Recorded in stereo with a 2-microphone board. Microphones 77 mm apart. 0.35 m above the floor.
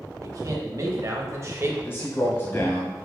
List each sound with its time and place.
0.2 s a man speaking: 50° right (ahead or behind), 2 m; by 1.7 s 35° right (ahead or behind), 1.5 m
1.8 s a man speaking: 30° left (ahead or behind), 1.7 m